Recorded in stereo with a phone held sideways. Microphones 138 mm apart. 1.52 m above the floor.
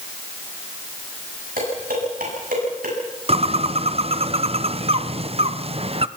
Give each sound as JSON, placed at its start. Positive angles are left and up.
{"t": 1.6, "sound": "dishes clattering", "side_deg": -85, "distance_m": 9.0}
{"t": 3.3, "sound": "a bird", "side_deg": -45, "distance_m": 0.8}